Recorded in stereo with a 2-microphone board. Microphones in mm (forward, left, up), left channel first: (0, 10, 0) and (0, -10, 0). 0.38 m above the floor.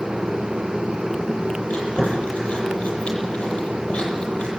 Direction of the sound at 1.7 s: 85° left.